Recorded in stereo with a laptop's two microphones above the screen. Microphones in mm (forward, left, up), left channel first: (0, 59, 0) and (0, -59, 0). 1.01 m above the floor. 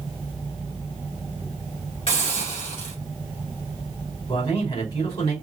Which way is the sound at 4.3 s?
45° left (ahead or behind).